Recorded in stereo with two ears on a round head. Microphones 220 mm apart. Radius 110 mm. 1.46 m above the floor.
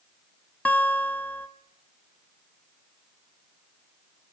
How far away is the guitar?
About 0.6 m.